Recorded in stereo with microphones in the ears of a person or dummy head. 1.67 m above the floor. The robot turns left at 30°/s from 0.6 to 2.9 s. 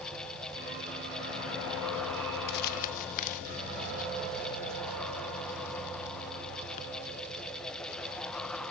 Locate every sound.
2.5 s crumpling: 60° left (ahead or behind), 1.1 m; by 6.8 s 50° left (ahead or behind), 1.1 m